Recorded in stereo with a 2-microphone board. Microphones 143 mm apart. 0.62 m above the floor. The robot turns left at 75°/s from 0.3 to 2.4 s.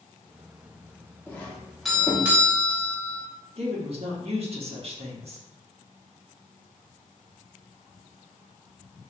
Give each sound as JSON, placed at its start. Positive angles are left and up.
{"t": 1.3, "sound": "a doorbell", "side_deg": 15, "distance_m": 1.0}
{"t": 3.6, "sound": "a woman speaking", "side_deg": -45, "distance_m": 1.1}